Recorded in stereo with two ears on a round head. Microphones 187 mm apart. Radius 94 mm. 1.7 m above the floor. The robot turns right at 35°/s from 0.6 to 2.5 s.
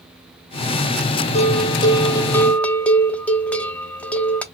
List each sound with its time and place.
1.4 s a bell: 130° left, 0.6 m; by 4.4 s 170° left, 0.6 m